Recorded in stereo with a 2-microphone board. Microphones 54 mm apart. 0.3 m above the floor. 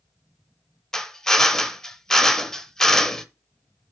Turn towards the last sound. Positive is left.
turn(degrees=10)  # may be behind; listen again after turning